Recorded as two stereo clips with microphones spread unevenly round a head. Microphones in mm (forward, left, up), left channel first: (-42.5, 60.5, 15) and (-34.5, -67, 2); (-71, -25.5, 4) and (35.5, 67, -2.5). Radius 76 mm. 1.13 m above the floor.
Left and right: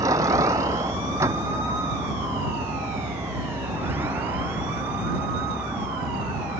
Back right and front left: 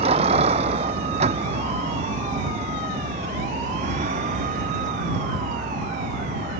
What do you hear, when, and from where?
0.0 s a vehicle: 15° right; by 6.6 s 5° right